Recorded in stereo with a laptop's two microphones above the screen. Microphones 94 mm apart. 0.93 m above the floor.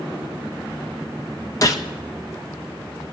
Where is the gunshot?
40° left (ahead or behind), 0.6 m.